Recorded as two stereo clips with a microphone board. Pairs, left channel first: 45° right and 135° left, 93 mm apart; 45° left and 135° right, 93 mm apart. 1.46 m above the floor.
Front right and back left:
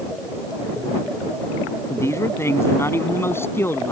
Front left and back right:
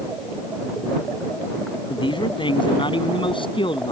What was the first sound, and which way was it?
A man speaking, 15° left.